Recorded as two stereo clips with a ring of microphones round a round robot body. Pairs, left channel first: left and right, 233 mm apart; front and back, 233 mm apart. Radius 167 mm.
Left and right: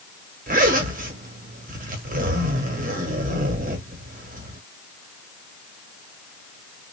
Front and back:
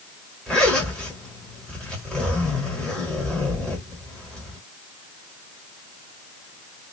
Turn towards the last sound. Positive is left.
turn(degrees=-85)